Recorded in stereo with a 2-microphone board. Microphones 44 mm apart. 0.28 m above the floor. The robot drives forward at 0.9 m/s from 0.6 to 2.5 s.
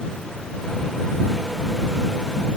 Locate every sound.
Only background noise.